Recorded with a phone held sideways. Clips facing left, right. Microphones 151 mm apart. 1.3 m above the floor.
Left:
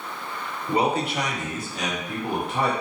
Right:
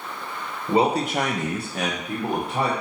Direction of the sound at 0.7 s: 25° right (ahead or behind).